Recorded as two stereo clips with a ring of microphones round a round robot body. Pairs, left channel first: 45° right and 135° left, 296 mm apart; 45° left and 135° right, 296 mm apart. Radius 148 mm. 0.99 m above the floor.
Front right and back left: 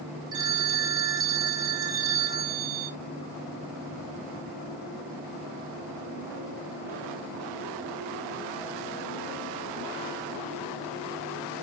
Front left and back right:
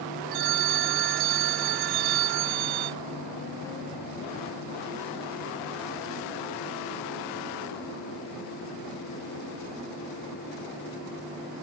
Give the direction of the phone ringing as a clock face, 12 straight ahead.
5 o'clock.